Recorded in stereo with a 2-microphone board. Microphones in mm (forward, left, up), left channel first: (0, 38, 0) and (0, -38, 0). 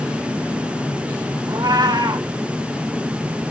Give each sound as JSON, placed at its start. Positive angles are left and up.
{"t": 1.5, "sound": "a cat meowing", "side_deg": -65, "distance_m": 1.0}